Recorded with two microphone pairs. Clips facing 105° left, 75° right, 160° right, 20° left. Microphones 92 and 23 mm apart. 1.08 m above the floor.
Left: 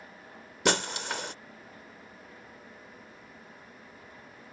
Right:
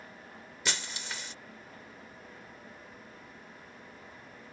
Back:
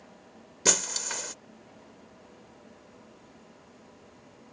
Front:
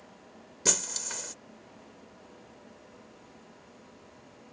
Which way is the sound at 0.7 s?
130° left.